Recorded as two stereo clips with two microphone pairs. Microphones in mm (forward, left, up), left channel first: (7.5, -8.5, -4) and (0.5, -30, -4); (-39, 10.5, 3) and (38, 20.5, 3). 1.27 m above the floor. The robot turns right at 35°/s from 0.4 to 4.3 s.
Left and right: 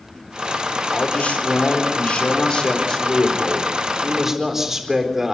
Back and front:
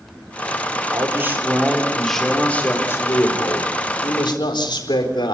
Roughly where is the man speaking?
Ahead left.